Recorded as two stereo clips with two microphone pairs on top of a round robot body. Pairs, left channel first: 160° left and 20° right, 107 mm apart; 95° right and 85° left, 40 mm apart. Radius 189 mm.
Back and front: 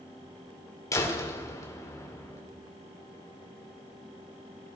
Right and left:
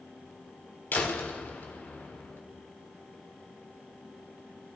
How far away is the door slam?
About 1.9 m.